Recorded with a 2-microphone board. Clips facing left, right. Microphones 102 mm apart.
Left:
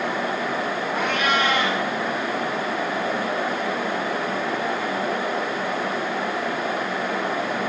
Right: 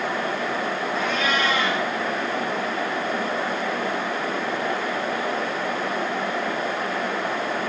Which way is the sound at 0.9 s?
65° left (ahead or behind).